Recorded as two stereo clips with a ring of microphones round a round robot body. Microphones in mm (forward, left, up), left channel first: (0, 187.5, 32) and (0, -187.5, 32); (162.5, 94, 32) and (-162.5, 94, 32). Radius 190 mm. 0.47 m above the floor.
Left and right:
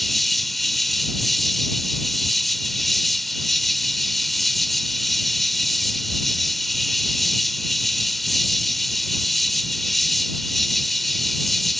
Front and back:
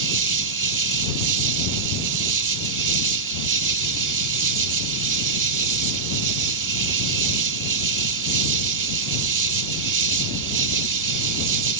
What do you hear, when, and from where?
0.0 s an insect: straight behind